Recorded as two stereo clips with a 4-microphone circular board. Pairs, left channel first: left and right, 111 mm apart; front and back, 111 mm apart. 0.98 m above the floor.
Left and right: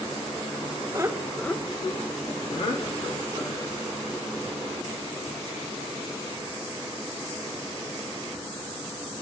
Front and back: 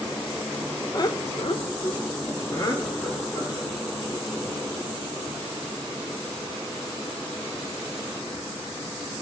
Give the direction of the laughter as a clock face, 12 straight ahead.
1 o'clock.